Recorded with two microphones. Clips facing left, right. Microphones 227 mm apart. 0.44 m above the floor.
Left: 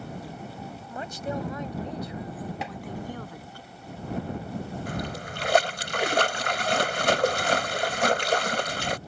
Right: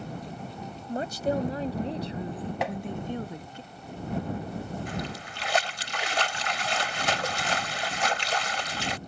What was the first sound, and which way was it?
A woman speaking, 40° right (ahead or behind).